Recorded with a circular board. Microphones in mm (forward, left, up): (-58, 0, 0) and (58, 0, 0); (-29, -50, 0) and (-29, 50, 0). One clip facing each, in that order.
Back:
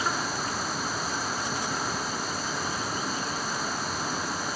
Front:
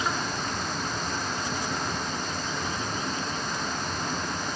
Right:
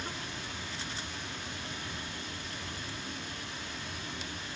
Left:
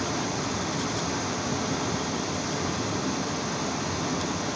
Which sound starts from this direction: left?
Running water, at 0.0 s.